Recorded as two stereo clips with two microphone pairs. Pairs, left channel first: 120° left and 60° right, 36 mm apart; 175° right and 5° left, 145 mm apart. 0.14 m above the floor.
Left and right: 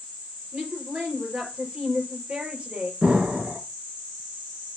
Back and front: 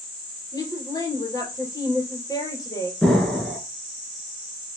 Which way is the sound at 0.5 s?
110° right.